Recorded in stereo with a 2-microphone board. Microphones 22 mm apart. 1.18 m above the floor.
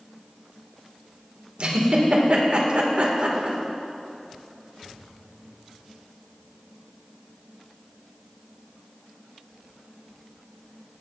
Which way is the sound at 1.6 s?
55° right (ahead or behind).